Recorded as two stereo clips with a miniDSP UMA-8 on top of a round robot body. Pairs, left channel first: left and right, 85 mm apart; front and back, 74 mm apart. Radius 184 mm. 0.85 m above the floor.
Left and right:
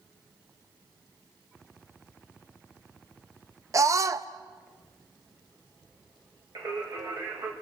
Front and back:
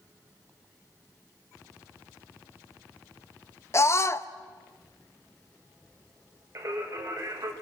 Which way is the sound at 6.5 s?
130° right.